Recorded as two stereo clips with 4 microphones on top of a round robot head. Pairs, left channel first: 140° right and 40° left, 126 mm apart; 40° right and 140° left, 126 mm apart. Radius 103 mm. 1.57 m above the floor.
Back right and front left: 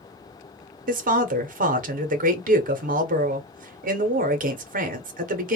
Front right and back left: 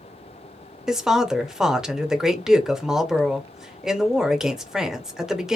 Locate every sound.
0.9 s a woman speaking: 55° left, 0.6 m